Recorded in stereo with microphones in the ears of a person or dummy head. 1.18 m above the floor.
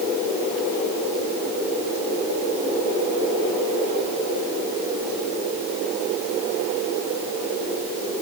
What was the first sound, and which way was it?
Only background noise.